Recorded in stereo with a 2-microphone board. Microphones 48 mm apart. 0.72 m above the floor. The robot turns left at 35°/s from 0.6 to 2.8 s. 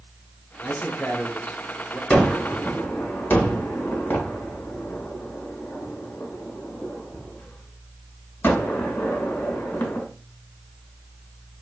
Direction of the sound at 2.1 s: 20° left (ahead or behind).